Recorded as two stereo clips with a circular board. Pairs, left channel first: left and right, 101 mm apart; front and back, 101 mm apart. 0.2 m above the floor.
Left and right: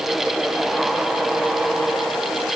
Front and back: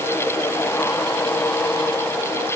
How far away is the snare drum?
No snare drum in this recording.